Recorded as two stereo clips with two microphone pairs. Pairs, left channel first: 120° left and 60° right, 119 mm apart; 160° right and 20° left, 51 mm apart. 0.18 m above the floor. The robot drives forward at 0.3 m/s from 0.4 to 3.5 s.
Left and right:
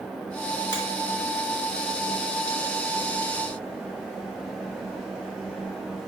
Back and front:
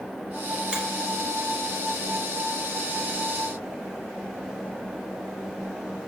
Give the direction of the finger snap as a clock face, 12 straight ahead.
1 o'clock.